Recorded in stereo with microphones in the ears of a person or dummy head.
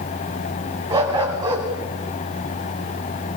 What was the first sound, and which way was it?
A dog barking, 20° right (ahead or behind).